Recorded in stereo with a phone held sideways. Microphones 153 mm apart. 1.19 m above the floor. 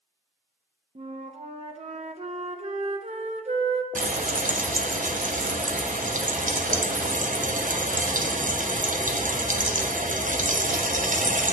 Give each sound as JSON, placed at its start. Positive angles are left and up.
{"t": 0.9, "sound": "a flute", "side_deg": -50, "distance_m": 0.6}
{"t": 4.0, "sound": "frying", "side_deg": -60, "distance_m": 0.7}